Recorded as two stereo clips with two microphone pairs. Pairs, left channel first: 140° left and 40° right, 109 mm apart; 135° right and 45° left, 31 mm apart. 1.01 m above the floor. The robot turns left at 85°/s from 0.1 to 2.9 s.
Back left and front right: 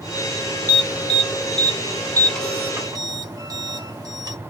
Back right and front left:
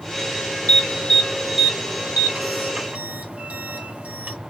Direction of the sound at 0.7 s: 160° right.